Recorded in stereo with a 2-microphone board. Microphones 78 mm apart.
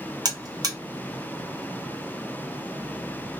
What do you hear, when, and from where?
0.2 s a buzzer: 55° right (ahead or behind), 0.8 m